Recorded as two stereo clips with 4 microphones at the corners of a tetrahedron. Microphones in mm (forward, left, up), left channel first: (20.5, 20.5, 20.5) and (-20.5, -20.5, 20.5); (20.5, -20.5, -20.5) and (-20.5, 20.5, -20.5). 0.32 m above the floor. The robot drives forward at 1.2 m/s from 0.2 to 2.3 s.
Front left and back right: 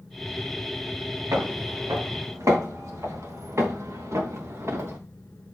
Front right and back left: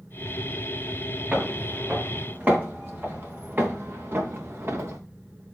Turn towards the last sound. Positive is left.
turn(degrees=180)